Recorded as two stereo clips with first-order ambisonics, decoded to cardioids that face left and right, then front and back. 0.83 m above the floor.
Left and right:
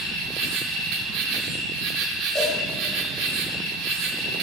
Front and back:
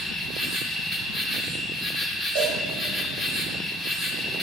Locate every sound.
0.0 s an insect: 105° right, 2.5 m
2.4 s a cowbell: 170° right, 7.5 m